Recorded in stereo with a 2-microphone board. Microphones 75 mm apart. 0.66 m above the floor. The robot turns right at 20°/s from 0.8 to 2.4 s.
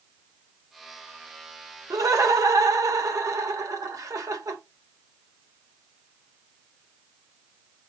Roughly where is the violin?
I don't hear a violin.